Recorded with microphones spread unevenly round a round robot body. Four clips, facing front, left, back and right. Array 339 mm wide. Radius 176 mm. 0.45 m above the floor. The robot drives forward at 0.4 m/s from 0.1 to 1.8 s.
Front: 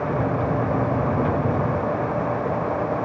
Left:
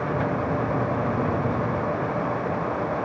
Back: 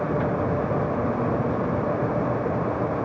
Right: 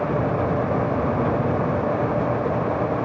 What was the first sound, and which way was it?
Only background noise.